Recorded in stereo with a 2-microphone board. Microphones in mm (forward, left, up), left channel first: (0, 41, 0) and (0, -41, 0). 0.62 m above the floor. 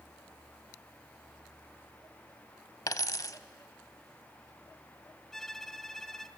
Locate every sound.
2.9 s a dropped coin: 45° left (ahead or behind), 0.5 m
5.3 s a violin: 5° left (ahead or behind), 0.6 m